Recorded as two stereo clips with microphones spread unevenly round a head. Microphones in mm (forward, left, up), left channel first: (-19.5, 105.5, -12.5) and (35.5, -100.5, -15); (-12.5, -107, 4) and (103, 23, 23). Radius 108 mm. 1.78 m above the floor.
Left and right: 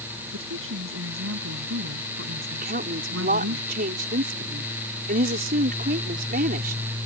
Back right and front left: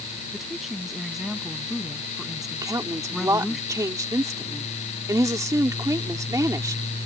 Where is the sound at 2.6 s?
25° right.